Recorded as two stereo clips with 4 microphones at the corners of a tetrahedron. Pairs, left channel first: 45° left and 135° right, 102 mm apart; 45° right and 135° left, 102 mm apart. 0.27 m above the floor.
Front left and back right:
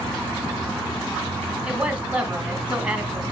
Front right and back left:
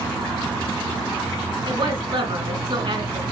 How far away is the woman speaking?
About 2 m.